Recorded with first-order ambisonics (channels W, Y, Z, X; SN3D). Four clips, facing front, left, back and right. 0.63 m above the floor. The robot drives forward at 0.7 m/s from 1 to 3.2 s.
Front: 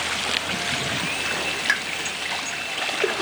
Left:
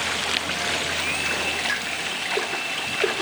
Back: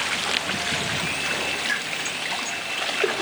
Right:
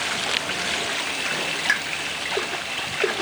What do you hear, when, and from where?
1.7 s a pop: 45° right, 0.6 m; by 1.8 s 55° right, 0.5 m